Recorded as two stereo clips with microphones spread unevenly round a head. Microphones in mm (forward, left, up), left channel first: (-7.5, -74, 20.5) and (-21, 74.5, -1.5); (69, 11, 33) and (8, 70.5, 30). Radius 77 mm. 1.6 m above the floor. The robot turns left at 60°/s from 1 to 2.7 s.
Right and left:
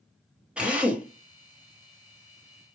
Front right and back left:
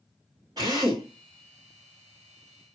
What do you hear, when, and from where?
0.6 s a drill: 175° right, 1.3 m; by 2.8 s 80° left, 1.3 m